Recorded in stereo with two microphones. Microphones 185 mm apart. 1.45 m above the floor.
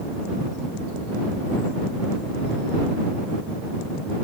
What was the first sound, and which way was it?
Only background noise.